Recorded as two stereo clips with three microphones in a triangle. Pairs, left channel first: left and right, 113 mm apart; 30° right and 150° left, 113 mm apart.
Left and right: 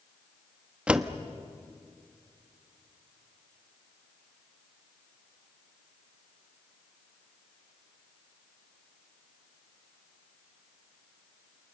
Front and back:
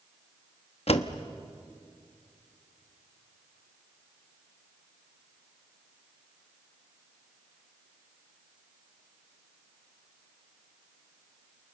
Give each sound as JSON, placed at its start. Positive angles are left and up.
{"t": 0.9, "sound": "a door slam", "azimuth_deg": -10, "distance_m": 1.0}